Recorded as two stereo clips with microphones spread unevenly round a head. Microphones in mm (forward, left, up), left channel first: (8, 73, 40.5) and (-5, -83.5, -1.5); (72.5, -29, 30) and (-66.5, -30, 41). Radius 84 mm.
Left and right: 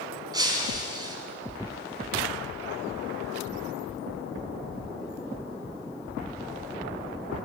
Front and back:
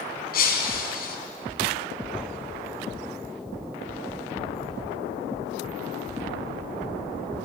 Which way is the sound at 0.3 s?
25° right.